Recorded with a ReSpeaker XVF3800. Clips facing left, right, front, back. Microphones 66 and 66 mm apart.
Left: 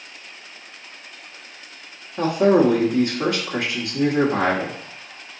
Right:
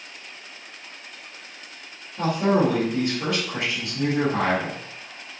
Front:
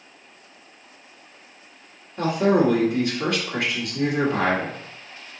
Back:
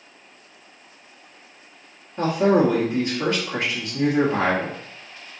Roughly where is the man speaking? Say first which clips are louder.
Left 5 dB, back 1 dB; left.